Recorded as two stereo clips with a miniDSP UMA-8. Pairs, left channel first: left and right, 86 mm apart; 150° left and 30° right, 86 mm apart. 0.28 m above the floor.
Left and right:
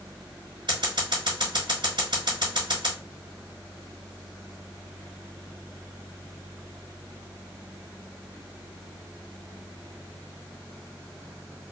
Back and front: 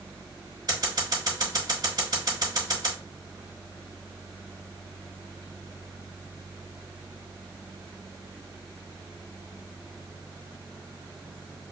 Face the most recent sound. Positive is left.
turn(degrees=-65)